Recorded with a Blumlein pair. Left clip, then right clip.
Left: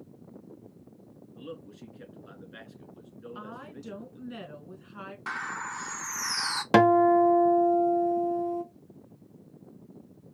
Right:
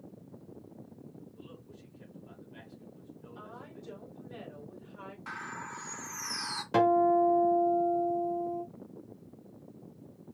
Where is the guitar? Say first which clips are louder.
Left 5 dB; 50° left, 0.6 m.